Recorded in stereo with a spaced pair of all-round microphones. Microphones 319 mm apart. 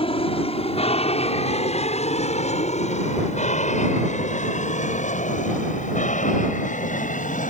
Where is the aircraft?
15° left (ahead or behind); by 7.5 s 25° left (ahead or behind).